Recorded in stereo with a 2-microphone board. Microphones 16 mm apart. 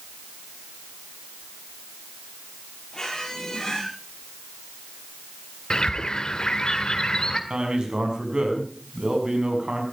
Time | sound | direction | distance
2.9 | a squeak | 30° left (ahead or behind) | 6 m
5.7 | a bird | 55° left (ahead or behind) | 1.6 m
7.5 | a man speaking | 65° right (ahead or behind) | 5.5 m